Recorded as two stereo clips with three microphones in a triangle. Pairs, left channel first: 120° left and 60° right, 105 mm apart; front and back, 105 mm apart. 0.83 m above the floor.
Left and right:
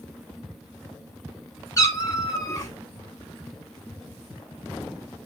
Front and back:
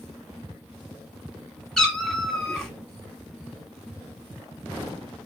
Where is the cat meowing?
85° left, 0.8 m.